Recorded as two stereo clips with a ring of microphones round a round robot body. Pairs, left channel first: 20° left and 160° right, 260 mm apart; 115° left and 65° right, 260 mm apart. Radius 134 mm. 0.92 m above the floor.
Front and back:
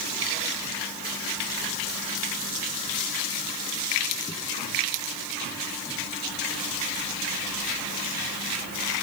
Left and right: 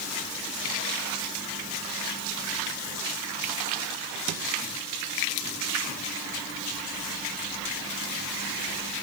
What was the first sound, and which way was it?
Only background noise.